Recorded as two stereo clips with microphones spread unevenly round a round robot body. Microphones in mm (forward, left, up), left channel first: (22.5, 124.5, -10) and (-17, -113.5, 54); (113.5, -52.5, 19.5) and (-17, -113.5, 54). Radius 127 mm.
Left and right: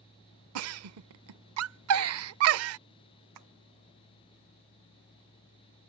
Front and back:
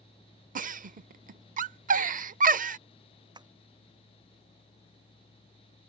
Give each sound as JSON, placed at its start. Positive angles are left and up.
{"t": 0.6, "sound": "a giggle", "azimuth_deg": -125}
{"t": 3.4, "sound": "tapping", "azimuth_deg": -95}